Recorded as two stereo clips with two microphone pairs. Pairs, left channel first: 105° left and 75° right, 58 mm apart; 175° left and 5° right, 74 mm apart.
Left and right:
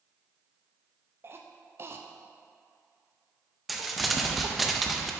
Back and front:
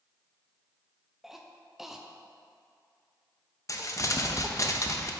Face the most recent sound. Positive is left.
turn(degrees=-160)